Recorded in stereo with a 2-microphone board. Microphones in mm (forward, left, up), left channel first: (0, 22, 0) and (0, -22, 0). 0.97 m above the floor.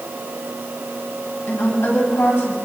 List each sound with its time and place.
1.5 s a woman speaking: 75° left (ahead or behind), 7.5 m